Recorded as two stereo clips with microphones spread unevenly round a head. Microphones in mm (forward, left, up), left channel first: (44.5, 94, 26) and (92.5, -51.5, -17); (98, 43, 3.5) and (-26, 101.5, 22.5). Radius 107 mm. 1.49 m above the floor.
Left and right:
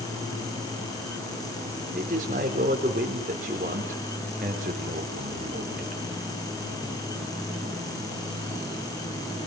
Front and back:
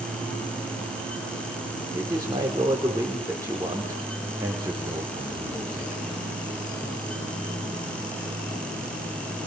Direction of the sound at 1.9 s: 130° right.